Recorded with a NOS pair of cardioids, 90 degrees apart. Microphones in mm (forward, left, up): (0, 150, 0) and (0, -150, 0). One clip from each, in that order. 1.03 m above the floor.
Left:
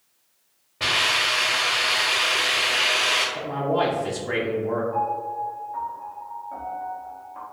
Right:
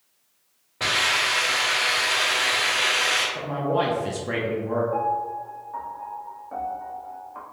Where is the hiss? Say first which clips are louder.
Left 1 dB; 15° right, 1.7 m.